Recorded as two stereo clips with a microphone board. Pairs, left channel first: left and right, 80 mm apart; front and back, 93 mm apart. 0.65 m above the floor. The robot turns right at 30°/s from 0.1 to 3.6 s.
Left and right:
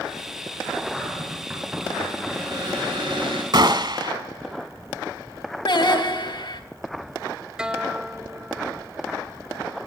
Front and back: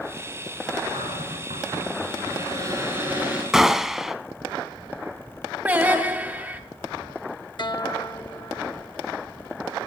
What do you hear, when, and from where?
0.9 s a cupboard door: 175° right, 8.5 m; by 3.4 s 100° right, 8.5 m
3.5 s a gunshot: 95° right, 0.9 m
5.7 s singing: 110° left, 2.5 m
7.6 s a guitar: 10° right, 0.5 m